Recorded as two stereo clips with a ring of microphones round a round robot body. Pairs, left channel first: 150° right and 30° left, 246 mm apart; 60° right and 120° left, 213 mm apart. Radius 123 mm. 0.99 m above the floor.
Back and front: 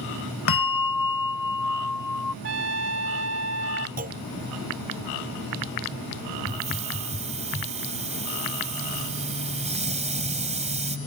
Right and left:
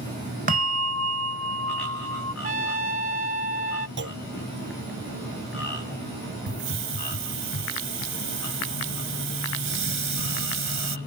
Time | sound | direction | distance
0.5 | a bell | 175° left | ?
2.4 | a trumpet | 70° left | ?
4.0 | a clunk | 90° left | ?
6.5 | a hiss | 95° left | ?